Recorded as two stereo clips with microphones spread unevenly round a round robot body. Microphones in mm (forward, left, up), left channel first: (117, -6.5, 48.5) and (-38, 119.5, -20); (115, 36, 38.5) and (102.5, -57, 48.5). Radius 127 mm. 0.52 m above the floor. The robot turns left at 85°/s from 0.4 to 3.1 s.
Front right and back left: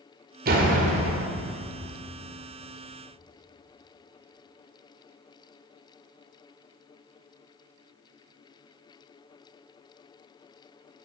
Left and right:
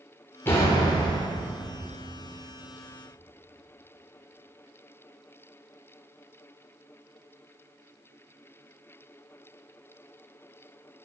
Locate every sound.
0.5 s a door slam: 150° left, 1.4 m; by 1.3 s 80° left, 1.4 m